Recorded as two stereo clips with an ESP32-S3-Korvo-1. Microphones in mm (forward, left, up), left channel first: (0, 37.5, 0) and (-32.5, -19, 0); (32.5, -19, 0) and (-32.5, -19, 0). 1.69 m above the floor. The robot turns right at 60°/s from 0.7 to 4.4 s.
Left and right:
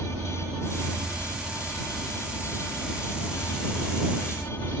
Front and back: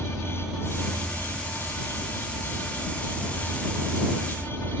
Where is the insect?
100° right; by 4.8 s 120° left.